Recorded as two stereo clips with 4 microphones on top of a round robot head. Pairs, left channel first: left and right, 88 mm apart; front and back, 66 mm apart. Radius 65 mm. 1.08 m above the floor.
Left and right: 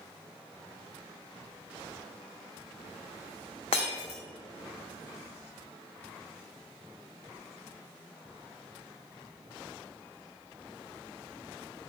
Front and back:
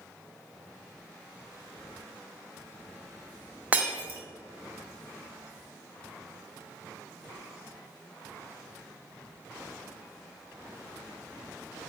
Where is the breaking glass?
120° left, 0.6 m.